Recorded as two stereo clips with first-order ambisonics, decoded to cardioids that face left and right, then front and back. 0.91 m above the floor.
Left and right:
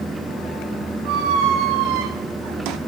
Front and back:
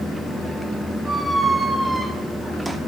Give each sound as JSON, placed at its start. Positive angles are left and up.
{"t": 1.1, "sound": "a squeak", "azimuth_deg": -100, "distance_m": 0.7}